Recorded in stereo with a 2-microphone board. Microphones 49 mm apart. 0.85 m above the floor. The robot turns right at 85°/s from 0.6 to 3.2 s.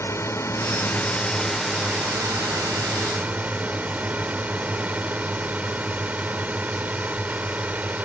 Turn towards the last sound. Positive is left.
turn(degrees=-35)